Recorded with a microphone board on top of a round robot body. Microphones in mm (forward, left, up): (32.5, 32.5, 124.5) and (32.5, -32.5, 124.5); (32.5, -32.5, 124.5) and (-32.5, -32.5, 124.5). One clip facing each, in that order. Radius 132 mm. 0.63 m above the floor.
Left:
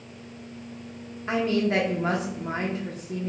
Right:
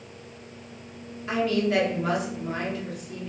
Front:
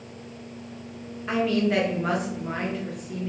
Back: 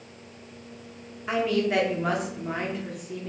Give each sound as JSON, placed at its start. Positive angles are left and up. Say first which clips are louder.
{"t": 1.3, "sound": "a woman speaking", "louder": "even, front 1 dB", "azimuth_deg": 95, "distance_m": 0.8}